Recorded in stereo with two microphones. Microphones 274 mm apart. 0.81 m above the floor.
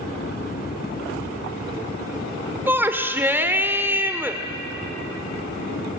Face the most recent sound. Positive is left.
turn(degrees=-5)  # may be behind; listen again after turning